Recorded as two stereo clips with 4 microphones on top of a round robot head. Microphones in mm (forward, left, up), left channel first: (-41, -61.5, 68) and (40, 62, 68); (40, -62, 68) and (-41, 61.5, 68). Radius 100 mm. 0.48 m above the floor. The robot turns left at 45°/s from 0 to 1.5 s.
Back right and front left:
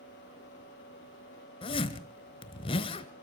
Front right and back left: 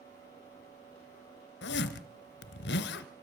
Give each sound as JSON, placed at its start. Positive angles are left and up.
{"t": 1.6, "sound": "a zipper", "azimuth_deg": -65, "distance_m": 1.2}